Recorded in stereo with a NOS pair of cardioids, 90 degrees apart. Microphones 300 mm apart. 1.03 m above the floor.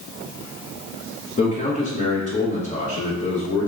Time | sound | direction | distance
1.4 | a man speaking | 25° left | 0.9 m